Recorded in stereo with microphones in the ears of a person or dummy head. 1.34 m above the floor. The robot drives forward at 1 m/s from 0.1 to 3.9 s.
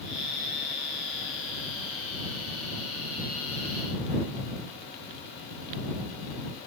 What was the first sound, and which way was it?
Only background noise.